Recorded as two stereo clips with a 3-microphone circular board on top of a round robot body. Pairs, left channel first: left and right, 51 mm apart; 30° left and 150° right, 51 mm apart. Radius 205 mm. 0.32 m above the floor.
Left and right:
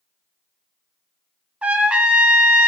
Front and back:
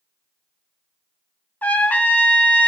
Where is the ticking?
No ticking in this recording.